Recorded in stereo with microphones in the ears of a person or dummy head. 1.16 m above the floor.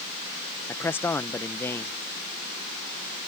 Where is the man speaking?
10° left (ahead or behind).